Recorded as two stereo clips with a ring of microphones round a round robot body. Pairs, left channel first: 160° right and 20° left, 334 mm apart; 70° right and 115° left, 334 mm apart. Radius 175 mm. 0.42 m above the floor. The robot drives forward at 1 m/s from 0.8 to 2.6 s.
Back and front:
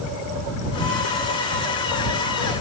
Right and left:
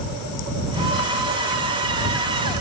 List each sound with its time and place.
Only background noise.